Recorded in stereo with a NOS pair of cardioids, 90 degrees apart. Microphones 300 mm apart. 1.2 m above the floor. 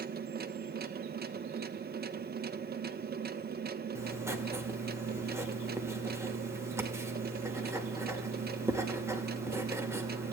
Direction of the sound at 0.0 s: 30° right.